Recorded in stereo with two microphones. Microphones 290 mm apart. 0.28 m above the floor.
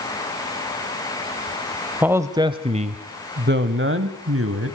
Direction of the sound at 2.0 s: 5° right (ahead or behind).